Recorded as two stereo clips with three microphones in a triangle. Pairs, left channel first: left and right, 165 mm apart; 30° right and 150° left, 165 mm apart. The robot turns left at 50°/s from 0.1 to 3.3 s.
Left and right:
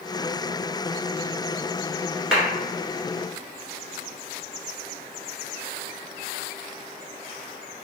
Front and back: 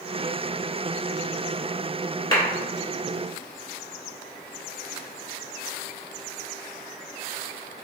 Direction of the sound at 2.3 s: 10° right.